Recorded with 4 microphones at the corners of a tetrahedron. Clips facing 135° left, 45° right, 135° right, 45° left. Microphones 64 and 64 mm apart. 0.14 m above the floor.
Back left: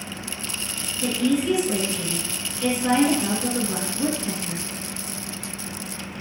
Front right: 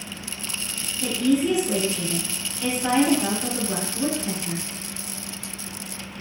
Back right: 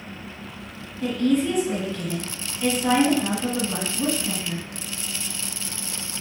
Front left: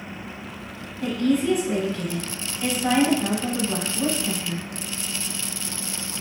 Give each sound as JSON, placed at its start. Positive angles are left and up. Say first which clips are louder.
{"t": 1.0, "sound": "a woman speaking", "louder": "front right 1 dB, even", "azimuth_deg": -30, "distance_m": 1.0}